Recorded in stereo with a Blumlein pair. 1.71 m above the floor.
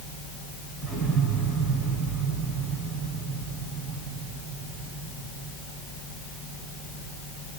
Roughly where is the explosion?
Ahead.